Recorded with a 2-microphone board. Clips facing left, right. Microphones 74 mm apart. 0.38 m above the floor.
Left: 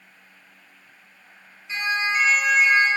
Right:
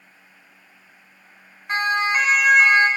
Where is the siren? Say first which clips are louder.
Right 4 dB; 65° right (ahead or behind), 4 m; by 2.9 s 75° right (ahead or behind), 5 m.